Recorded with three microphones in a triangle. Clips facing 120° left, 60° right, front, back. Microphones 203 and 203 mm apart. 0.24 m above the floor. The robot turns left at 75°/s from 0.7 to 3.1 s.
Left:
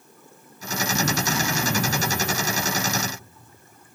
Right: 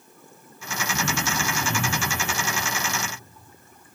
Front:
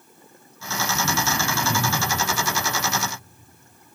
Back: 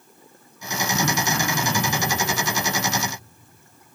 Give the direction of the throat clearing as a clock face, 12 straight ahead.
6 o'clock.